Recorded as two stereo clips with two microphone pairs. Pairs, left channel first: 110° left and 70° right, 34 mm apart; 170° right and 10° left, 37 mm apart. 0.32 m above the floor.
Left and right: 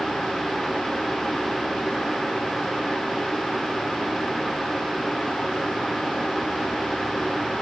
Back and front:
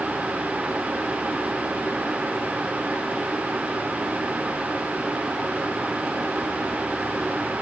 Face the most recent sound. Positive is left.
No sound to turn to.